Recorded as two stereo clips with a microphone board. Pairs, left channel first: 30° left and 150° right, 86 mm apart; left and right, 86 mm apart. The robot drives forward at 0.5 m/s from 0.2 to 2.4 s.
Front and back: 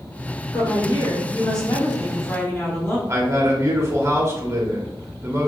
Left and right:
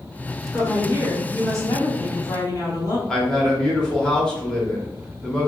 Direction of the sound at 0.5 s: 35° left.